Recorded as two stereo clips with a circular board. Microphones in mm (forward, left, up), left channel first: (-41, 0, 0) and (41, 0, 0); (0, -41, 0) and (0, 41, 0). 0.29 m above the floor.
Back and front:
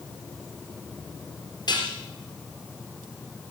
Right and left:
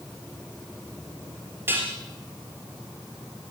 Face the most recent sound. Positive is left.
turn(degrees=150)